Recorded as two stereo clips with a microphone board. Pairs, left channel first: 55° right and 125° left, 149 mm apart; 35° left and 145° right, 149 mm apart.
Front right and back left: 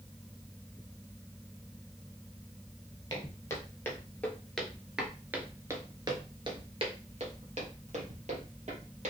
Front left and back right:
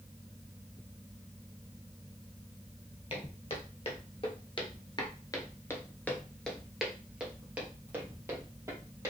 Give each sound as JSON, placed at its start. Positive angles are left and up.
{"t": 3.1, "sound": "footsteps", "azimuth_deg": 5, "distance_m": 2.0}